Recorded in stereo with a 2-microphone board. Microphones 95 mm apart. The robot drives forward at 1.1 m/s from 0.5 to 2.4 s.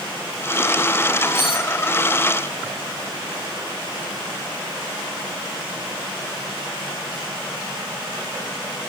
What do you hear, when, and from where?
1.4 s cutlery clinking: 55° left (ahead or behind), 5 m; by 1.7 s 50° left (ahead or behind), 5.5 m